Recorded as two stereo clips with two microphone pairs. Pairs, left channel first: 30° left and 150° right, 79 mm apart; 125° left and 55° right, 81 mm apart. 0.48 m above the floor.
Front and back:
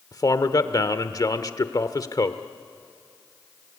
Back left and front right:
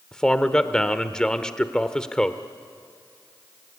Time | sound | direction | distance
0.1 | a man speaking | 50° left | 1.2 m